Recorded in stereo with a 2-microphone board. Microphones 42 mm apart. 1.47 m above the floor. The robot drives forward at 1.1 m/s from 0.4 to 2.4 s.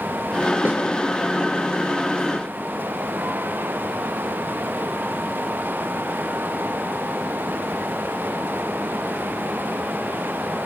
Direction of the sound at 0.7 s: 50° right (ahead or behind).